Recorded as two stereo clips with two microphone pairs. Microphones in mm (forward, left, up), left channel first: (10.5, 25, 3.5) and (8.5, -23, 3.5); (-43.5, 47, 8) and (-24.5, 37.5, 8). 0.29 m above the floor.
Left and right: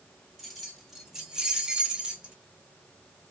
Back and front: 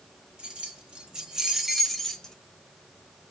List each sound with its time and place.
0.4 s keys jangling: 5° right, 1.5 m; by 2.4 s 155° right, 1.0 m